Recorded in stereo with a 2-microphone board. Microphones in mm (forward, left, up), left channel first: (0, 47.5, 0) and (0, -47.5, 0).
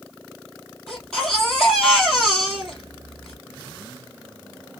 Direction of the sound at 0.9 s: Centre (ahead or behind).